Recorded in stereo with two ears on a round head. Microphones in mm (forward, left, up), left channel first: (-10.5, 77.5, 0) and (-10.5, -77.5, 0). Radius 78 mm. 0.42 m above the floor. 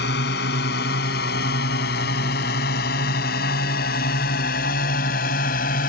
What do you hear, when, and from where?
0.0 s a drone: 60° left (ahead or behind); by 5.9 s 50° left (ahead or behind)